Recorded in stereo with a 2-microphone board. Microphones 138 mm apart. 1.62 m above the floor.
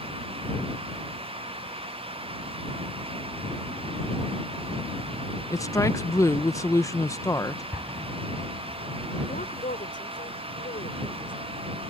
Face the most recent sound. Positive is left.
turn(degrees=75)  # may be behind; listen again after turning